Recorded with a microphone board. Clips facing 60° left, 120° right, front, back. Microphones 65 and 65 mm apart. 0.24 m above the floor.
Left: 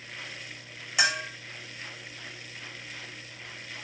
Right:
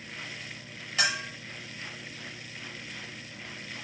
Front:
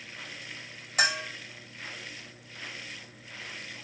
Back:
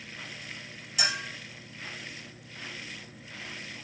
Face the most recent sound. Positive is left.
turn(degrees=-10)